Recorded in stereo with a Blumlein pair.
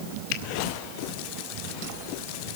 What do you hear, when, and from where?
0.3 s a finger snap: 45° left, 2.0 m